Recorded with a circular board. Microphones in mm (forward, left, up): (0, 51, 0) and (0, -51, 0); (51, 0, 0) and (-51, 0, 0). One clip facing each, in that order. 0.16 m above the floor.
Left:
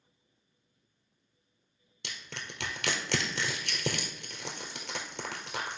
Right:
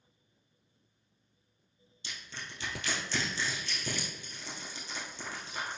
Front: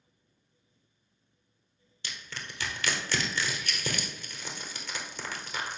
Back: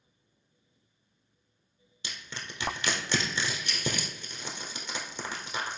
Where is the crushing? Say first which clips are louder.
Left 2 dB, even; 105° left, 1.7 m.